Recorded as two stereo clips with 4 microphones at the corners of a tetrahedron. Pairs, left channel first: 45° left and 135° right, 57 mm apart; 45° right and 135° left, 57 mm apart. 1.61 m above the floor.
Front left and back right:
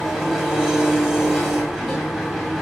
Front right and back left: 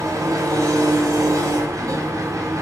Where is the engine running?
140° left, 1.2 m.